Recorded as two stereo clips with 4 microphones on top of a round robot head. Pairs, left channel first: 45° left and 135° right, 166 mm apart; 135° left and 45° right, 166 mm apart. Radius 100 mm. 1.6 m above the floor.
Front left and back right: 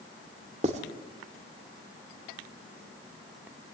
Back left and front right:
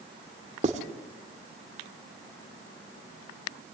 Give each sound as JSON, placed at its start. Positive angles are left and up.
{"t": 0.6, "sound": "writing", "azimuth_deg": -85, "distance_m": 1.7}